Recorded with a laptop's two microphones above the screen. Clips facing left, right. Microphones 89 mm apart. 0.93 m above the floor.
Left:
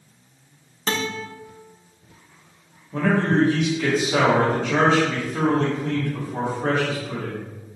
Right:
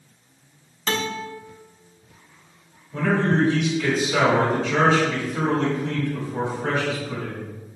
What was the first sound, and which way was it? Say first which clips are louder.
A guitar: even; 35° left (ahead or behind).